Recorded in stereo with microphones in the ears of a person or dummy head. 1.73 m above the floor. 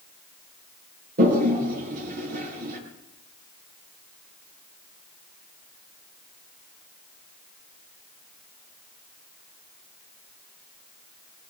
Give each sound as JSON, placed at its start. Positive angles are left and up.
{"t": 1.2, "sound": "a toilet flushing", "side_deg": -55, "distance_m": 5.5}